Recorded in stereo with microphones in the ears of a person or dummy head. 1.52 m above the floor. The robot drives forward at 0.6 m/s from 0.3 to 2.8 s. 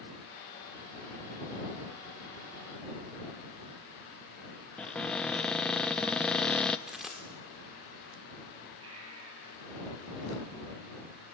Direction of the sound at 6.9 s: Centre (ahead or behind).